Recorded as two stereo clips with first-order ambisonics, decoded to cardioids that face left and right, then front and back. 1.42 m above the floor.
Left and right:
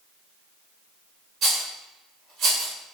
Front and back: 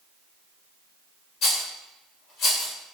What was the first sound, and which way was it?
A rattle, 50° right.